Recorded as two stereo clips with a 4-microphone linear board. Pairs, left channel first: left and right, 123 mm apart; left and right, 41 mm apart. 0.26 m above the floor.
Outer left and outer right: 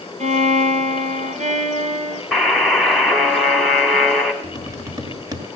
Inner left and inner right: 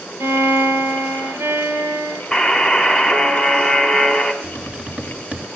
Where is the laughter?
I don't hear laughter.